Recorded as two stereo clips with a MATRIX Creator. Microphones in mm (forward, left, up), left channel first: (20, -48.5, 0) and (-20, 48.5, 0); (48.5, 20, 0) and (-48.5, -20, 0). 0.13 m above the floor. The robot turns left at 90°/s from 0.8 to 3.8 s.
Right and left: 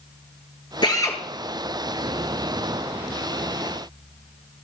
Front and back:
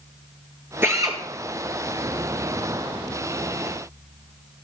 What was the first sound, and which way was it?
A drill, 95° right.